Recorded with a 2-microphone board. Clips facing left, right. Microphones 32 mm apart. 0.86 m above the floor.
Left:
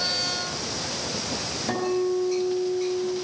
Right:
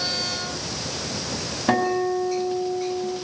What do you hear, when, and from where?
1.7 s a guitar: 35° right (ahead or behind), 7.5 m